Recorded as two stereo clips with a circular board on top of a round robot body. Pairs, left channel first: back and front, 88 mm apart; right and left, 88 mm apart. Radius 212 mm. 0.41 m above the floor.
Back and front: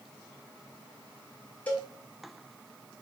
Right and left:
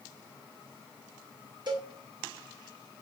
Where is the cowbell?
110° left, 2.5 m.